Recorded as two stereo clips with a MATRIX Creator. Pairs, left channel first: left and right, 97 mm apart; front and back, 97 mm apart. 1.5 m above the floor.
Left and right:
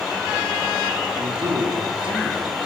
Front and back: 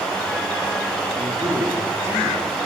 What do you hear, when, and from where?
1.2 s a man speaking: 120° right, 5 m